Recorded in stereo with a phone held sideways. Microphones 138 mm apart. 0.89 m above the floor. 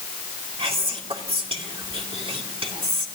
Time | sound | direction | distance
0.6 | whispering | 40° right (ahead or behind) | 2 m